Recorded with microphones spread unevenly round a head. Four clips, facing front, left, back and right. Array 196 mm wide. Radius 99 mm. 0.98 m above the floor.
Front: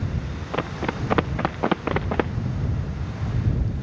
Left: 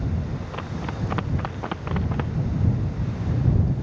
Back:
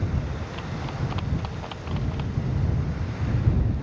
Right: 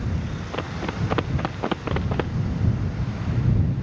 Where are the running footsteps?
20° right.